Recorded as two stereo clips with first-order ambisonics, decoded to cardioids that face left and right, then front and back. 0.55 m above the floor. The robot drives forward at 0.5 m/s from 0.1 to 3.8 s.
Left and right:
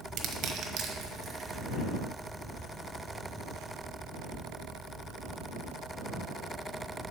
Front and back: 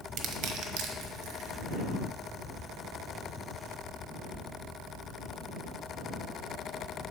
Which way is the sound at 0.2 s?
140° right.